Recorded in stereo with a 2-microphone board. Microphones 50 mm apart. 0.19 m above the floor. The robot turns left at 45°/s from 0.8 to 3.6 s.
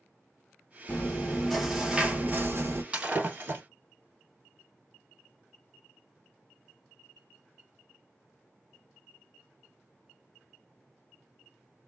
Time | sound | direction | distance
0.9 | chewing | 30° left | 0.8 m
2.9 | breaking glass | 20° right (ahead or behind) | 1.4 m